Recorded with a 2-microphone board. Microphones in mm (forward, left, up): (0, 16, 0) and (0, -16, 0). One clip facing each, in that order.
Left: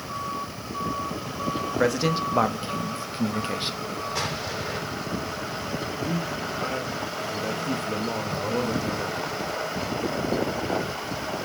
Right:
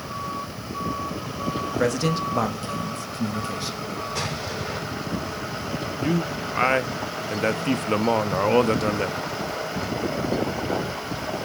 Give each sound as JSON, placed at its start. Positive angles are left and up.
{"t": 1.8, "sound": "a man speaking", "side_deg": 10, "distance_m": 1.7}
{"t": 4.2, "sound": "an explosion", "side_deg": 5, "distance_m": 3.5}
{"t": 6.0, "sound": "a man speaking", "side_deg": -65, "distance_m": 0.9}